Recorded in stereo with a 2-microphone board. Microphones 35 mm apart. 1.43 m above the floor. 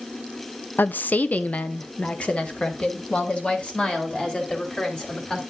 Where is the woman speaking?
60° left (ahead or behind), 0.5 m; by 5.4 s 25° left (ahead or behind), 3.5 m.